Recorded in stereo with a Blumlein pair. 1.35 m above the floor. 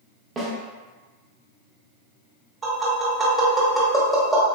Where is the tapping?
15° right, 1.2 m.